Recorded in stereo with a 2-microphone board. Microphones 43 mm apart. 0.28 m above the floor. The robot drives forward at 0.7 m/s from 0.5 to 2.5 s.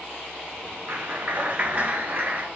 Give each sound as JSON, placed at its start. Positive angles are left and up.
{"t": 0.9, "sound": "a clap", "side_deg": -55, "distance_m": 3.0}